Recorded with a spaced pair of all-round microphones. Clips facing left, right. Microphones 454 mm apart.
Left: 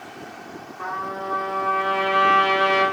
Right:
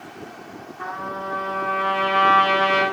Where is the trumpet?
35° right (ahead or behind), 2.5 m.